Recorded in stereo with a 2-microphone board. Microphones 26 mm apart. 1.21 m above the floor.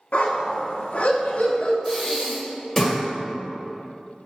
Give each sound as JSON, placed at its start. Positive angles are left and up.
{"t": 0.1, "sound": "a dog barking", "side_deg": 60, "distance_m": 1.1}
{"t": 1.9, "sound": "breathing", "side_deg": 15, "distance_m": 1.6}